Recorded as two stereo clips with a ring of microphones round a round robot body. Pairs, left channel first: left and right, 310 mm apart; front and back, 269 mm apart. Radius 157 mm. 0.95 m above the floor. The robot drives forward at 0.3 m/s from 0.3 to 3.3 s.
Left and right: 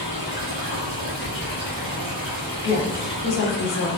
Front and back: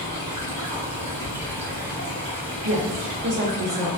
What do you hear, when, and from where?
0.0 s running water: 130° right, 1.8 m; by 4.0 s 145° right, 2.5 m
2.6 s a woman speaking: 155° left, 1.1 m; by 3.9 s 160° left, 1.2 m